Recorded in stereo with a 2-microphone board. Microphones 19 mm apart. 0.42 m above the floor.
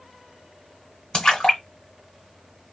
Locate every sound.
1.1 s a splash: 40° left (ahead or behind), 2.0 m